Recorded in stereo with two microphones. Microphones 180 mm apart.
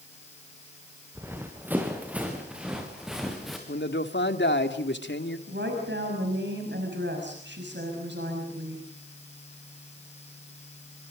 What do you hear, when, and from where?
1.1 s running footsteps: 10° right (ahead or behind), 5 m; by 3.6 s centre (ahead or behind), 5.5 m
3.7 s a man speaking: 85° left, 2.5 m
5.5 s a woman speaking: 85° right, 6 m